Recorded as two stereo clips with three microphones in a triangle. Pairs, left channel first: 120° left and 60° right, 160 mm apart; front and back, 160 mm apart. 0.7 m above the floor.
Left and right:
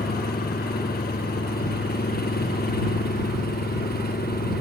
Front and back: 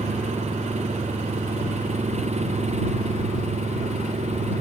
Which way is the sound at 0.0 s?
135° left.